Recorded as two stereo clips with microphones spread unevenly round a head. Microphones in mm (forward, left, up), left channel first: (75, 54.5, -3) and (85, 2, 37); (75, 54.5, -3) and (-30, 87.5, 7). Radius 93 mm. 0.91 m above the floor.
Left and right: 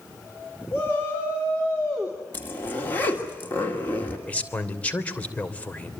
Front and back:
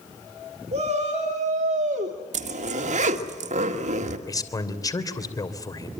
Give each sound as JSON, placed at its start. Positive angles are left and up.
{"t": 0.7, "sound": "a shout", "azimuth_deg": 145, "distance_m": 3.0}
{"t": 2.3, "sound": "a zipper", "azimuth_deg": 155, "distance_m": 2.0}
{"t": 4.3, "sound": "a man speaking", "azimuth_deg": 40, "distance_m": 3.0}